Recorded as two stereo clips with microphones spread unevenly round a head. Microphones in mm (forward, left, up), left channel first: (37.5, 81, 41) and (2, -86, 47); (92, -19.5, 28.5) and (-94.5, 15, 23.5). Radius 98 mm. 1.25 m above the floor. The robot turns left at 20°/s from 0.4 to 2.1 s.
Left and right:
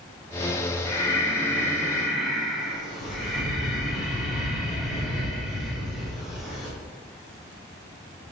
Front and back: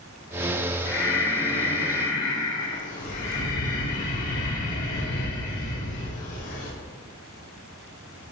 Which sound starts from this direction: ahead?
Breathing, at 0.8 s.